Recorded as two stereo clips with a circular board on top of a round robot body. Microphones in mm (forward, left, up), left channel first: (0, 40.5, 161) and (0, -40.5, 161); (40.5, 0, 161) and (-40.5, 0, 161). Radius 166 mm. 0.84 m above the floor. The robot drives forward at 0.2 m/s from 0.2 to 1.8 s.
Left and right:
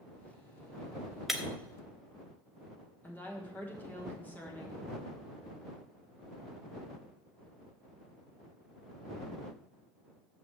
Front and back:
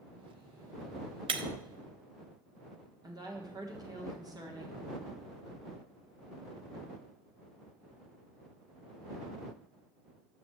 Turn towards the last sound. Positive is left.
turn(degrees=155)